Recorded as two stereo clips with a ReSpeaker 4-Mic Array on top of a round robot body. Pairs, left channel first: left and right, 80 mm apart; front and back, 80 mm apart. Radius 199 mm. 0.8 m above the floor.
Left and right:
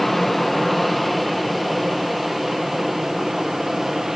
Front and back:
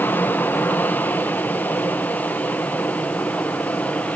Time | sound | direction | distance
0.0 | an aircraft | 5° left | ?